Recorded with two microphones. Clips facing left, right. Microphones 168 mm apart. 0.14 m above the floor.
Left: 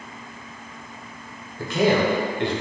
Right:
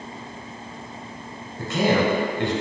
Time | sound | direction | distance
1.6 | a man speaking | 25° right (ahead or behind) | 1.2 m